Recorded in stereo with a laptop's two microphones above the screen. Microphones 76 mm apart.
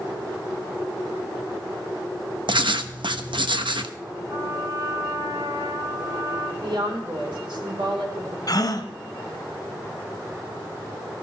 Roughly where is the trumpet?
Right.